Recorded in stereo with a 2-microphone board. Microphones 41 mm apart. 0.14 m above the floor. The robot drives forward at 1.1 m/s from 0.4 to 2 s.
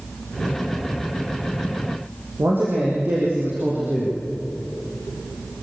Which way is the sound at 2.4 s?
55° right (ahead or behind).